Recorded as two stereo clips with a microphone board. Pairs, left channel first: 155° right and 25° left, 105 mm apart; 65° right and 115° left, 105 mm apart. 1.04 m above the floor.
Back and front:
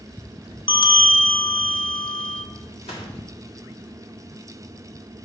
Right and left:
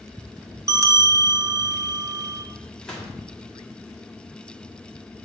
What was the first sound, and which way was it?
A bell, 170° left.